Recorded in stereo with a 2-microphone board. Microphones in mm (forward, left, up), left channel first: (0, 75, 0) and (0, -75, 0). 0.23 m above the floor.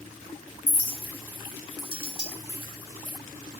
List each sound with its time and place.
0.7 s a clink: 35° left (ahead or behind), 0.7 m